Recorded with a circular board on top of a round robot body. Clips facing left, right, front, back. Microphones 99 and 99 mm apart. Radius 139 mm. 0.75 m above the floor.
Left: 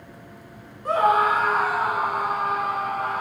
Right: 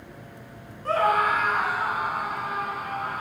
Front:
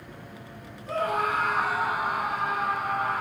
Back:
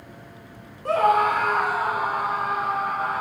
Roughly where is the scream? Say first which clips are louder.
Left 3 dB, back 8 dB; behind.